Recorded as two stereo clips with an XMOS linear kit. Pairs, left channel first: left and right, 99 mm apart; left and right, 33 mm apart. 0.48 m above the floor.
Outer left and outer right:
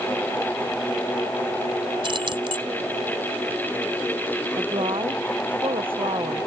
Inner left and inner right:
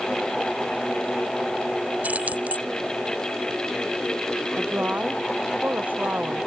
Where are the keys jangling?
60° right (ahead or behind).